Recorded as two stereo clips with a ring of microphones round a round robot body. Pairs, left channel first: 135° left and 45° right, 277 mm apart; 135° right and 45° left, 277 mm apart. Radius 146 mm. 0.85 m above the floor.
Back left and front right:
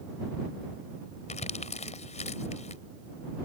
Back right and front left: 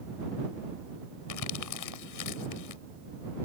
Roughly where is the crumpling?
Behind.